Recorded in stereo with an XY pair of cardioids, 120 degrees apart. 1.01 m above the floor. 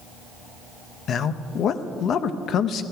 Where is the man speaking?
55° left, 0.7 m.